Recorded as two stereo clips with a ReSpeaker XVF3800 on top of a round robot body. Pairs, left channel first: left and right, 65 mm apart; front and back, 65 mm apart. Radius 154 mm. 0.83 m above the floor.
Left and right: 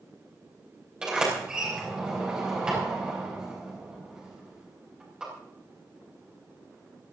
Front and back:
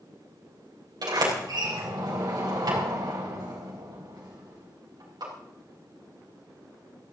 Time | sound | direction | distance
1.0 | a sliding door | 170° right | 4 m